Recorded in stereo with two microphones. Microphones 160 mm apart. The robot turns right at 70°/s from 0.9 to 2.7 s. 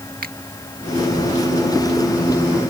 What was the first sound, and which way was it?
A finger snap, 70° right (ahead or behind).